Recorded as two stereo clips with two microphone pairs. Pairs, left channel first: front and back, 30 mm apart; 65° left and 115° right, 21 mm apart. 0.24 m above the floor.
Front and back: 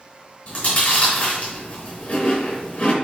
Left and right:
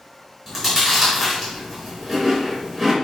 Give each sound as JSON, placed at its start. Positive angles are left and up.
{"t": 0.5, "sound": "chewing", "azimuth_deg": -35, "distance_m": 3.5}